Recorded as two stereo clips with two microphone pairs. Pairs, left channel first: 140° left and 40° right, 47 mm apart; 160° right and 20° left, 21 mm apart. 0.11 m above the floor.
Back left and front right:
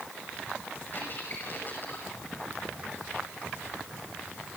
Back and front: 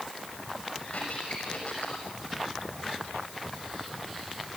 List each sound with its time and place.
0.9 s a squeak: 175° right, 5.5 m